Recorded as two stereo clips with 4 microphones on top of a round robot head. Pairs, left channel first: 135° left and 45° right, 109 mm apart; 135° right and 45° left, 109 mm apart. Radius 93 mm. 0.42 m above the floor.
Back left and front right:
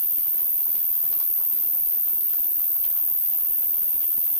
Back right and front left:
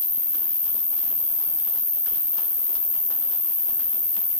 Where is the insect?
150° right, 3.5 m.